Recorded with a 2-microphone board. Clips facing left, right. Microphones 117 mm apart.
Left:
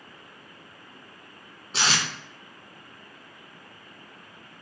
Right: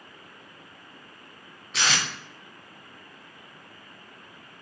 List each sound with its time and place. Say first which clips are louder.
1.7 s tape being pulled: left 1 dB; 30° left (ahead or behind), 0.7 m